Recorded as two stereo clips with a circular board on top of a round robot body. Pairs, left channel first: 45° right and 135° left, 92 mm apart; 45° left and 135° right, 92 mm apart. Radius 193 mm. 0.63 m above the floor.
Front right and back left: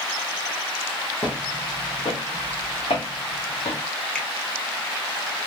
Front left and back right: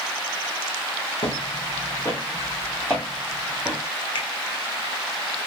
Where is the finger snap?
30° left, 1.9 m.